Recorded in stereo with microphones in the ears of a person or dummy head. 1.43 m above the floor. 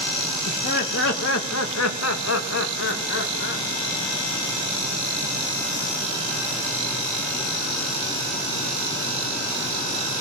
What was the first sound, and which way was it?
Laughter, 45° left (ahead or behind).